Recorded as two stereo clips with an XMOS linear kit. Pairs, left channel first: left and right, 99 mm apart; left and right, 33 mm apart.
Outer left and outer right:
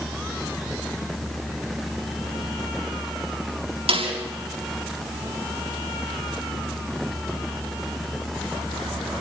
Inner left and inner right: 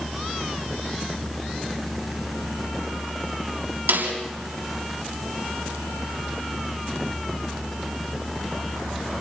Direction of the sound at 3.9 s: 75° right (ahead or behind).